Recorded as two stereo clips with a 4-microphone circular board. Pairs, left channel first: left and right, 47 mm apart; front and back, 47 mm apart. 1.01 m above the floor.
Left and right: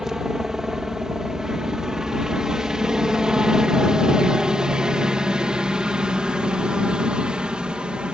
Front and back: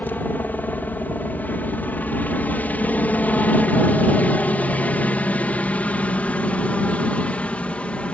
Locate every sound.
0.0 s a helicopter: 15° right; by 8.2 s 35° right